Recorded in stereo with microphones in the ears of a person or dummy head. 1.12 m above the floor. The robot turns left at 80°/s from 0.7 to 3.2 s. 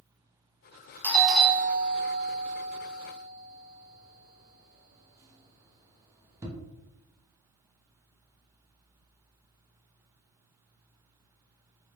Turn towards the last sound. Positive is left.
turn(degrees=-10)  # may be behind; listen again after turning